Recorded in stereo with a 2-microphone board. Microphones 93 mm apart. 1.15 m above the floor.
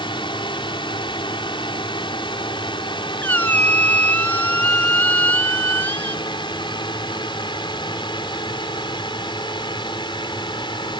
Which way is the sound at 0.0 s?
60° left (ahead or behind).